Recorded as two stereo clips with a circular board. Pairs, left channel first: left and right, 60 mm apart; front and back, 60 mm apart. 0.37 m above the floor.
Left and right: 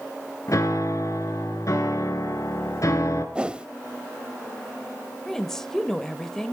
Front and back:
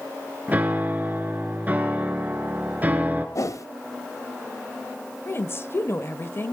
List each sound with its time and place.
0.5 s a piano: 120° left, 2 m
3.4 s a whoosh: 20° right, 0.5 m
5.3 s a woman speaking: 10° left, 1.2 m